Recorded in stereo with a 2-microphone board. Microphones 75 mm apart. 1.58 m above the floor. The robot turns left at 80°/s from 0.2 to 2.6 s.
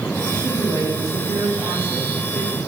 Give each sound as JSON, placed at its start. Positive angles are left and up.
{"t": 0.3, "sound": "a woman speaking", "azimuth_deg": -20, "distance_m": 8.5}